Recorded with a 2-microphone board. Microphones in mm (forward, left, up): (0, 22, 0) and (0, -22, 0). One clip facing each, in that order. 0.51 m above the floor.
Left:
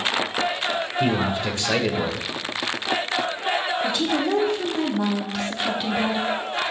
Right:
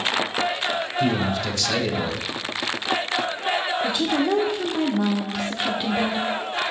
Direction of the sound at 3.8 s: 10° right (ahead or behind).